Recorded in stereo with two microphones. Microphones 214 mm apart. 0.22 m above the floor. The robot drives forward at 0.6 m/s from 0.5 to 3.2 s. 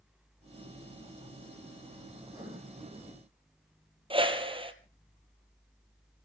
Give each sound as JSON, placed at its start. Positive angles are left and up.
{"t": 2.2, "sound": "writing", "side_deg": -15, "distance_m": 4.5}
{"t": 4.1, "sound": "a whoosh", "side_deg": -25, "distance_m": 1.5}